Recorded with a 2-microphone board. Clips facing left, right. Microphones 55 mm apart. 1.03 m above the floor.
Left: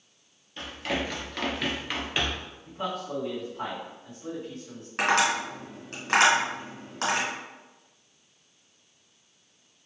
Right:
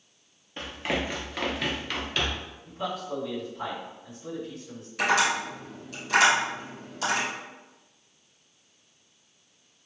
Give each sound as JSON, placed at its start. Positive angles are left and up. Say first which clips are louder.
{"t": 0.6, "sound": "running footsteps", "louder": "right 1 dB", "side_deg": -30, "distance_m": 1.3}
{"t": 2.6, "sound": "a man speaking", "louder": "even", "side_deg": 60, "distance_m": 1.8}
{"t": 5.0, "sound": "tapping", "louder": "even", "side_deg": 60, "distance_m": 1.8}